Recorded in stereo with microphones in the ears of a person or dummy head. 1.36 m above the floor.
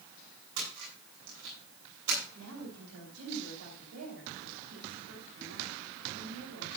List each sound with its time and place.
0.6 s a splash: 75° right (ahead or behind), 9.5 m
2.3 s a woman speaking: 85° right, 5 m